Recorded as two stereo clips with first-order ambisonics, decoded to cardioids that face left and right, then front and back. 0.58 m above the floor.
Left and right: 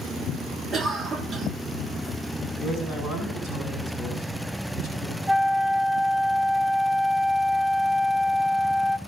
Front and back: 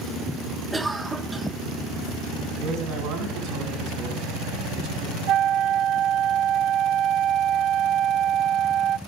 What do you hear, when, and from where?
0.7 s a cough: 115° right, 0.9 m
2.6 s a man speaking: 150° right, 5.5 m
5.3 s a flute: 165° right, 0.5 m